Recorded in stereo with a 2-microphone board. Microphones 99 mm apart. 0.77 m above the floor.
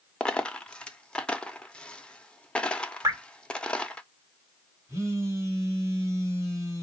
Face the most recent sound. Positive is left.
turn(degrees=-30)  # may be behind; listen again after turning